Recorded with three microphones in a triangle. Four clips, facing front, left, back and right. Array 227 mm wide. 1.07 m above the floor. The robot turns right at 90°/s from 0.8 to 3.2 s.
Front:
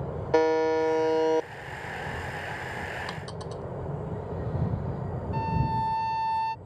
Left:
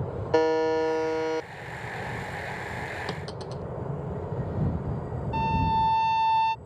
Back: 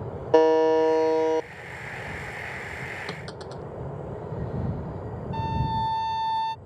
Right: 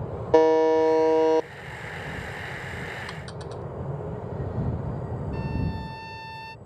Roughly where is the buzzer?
Behind right.